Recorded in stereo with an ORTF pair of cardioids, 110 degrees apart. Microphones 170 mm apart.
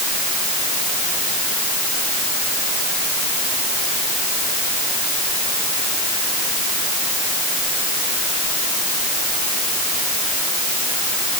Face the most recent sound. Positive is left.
No sound to turn to.